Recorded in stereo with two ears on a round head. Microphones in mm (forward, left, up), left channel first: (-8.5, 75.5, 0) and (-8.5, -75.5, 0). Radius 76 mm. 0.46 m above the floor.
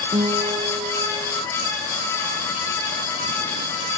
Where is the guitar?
25° right (ahead or behind).